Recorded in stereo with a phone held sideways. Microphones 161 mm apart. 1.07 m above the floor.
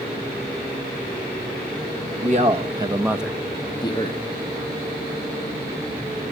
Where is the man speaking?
45° right (ahead or behind), 1.3 m; by 4.2 s 40° left (ahead or behind), 1.3 m.